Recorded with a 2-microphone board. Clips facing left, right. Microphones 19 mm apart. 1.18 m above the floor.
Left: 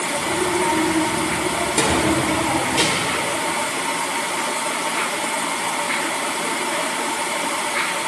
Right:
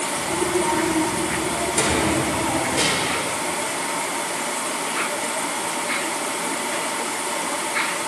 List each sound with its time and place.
0.2 s a child speaking: 5° left (ahead or behind), 3.5 m; by 2.9 s 35° left (ahead or behind), 3 m
1.9 s a drawer: 65° left (ahead or behind), 4 m